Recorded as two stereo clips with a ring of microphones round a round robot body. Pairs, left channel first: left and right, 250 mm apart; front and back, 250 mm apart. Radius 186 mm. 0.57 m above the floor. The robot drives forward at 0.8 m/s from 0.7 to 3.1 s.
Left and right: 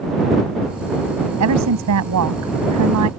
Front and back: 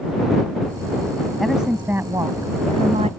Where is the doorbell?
No doorbell in this recording.